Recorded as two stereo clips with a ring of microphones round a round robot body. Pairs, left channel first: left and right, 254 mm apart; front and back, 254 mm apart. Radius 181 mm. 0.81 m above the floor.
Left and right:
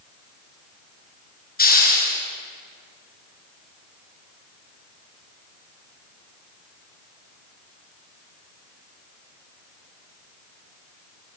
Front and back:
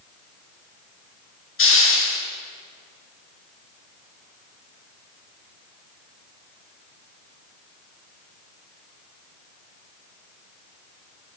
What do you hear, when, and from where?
1.6 s a hiss: 35° left, 6 m